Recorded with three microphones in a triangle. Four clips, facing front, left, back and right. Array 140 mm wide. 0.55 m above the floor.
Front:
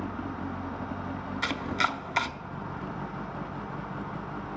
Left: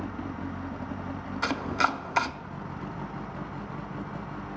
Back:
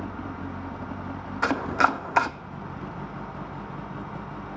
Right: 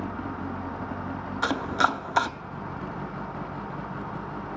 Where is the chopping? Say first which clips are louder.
Right 3 dB, back 8 dB; 155° right, 0.5 m.